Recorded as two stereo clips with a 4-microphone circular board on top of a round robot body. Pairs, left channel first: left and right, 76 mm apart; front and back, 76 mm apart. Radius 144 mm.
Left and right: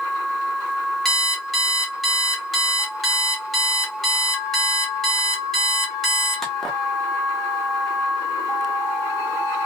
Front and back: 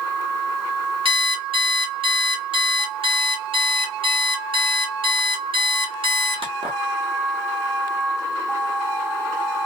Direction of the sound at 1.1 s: Straight behind.